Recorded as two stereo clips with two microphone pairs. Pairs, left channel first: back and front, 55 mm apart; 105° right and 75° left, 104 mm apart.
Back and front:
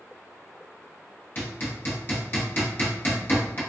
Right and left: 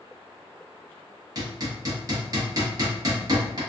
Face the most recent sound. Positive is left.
turn(degrees=130)